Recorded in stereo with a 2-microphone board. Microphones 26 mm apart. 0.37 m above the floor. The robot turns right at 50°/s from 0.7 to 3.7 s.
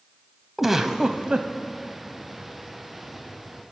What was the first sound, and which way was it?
A giggle, 165° right.